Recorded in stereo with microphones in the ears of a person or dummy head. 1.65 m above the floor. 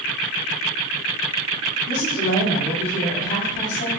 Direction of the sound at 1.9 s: 50° left (ahead or behind).